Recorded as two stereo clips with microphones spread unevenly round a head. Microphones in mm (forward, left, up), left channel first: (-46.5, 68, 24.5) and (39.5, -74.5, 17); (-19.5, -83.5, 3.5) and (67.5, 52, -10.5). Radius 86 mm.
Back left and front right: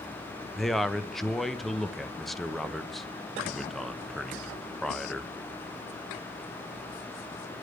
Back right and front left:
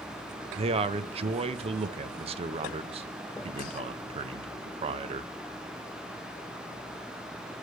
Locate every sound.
0.6 s a man speaking: 30° left, 0.5 m